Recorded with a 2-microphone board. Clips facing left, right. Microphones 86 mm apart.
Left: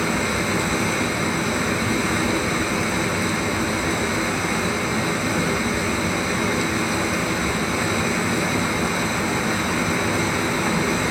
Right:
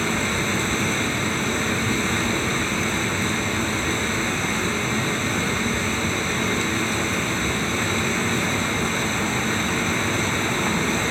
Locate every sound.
0.0 s running water: 10° left (ahead or behind), 3.5 m